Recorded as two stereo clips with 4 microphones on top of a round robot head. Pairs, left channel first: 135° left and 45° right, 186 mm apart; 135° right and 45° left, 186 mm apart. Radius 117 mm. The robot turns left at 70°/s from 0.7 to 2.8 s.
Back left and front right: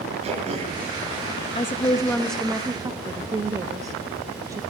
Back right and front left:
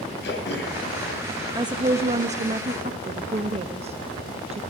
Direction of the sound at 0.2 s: 105° right.